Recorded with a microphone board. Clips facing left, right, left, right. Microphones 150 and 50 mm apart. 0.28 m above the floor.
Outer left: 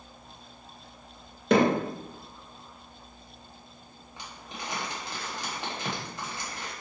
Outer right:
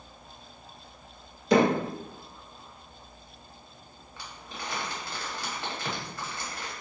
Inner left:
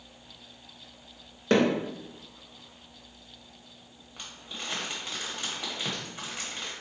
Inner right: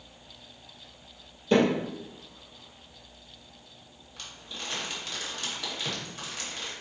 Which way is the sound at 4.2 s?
20° left (ahead or behind).